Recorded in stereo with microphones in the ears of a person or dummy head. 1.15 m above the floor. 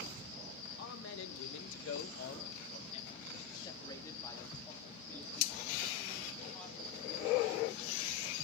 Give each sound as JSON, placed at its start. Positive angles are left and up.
{"t": 0.8, "sound": "a man speaking", "side_deg": 65, "distance_m": 0.9}